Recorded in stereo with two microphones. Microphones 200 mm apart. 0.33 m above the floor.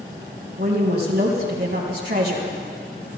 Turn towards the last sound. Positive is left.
turn(degrees=-60)  # may be behind; listen again after turning